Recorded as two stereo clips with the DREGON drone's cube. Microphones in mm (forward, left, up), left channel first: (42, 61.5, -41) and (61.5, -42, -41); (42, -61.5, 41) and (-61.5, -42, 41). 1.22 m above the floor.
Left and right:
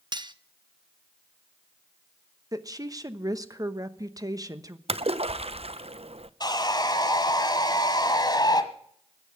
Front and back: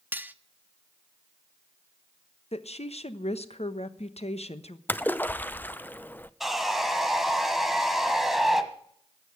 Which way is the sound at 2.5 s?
25° right.